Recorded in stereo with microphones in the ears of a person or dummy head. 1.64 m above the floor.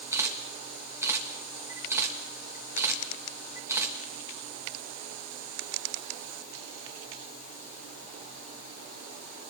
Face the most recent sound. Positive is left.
turn(degrees=-10)  # may be behind; listen again after turning